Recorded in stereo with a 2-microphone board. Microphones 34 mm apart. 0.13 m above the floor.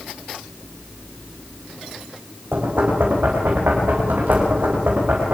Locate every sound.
2.5 s knocking: 75° right (ahead or behind), 7.5 m